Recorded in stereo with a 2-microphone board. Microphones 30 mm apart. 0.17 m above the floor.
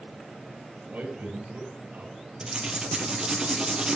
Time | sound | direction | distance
0.9 | a man speaking | 60° right (ahead or behind) | 3 m
2.4 | writing | 30° right (ahead or behind) | 1.8 m